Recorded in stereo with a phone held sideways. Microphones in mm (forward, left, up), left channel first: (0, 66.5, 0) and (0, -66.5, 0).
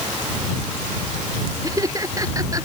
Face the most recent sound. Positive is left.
turn(degrees=-25)  # may be behind; listen again after turning